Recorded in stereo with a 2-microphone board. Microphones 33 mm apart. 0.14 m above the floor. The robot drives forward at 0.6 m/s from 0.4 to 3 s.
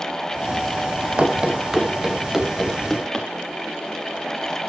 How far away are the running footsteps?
About 2 m.